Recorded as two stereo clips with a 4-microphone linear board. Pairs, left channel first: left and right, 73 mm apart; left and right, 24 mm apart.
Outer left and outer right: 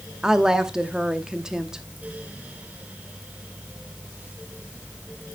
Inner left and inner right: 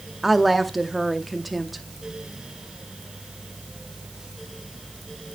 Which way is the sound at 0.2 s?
10° right (ahead or behind).